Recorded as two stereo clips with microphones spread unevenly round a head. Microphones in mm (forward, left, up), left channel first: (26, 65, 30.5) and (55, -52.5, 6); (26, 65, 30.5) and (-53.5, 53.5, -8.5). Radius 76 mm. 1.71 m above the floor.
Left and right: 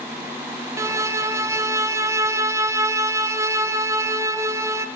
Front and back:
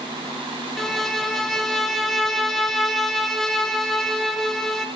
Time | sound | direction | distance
0.8 | a violin | 15° right | 0.9 m